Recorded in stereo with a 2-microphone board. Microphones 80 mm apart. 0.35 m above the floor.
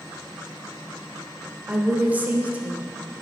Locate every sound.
1.7 s a woman speaking: 20° right (ahead or behind), 0.8 m